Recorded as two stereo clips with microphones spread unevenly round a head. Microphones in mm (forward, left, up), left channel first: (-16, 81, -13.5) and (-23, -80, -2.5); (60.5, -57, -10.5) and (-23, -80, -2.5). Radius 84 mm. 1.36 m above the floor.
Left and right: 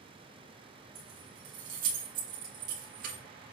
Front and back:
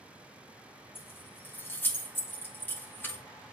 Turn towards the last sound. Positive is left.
turn(degrees=-50)